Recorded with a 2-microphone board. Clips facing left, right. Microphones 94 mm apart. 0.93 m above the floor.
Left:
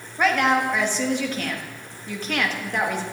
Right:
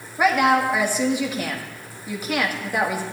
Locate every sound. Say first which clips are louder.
0.2 s a woman speaking: right 2 dB; 10° right (ahead or behind), 1.7 m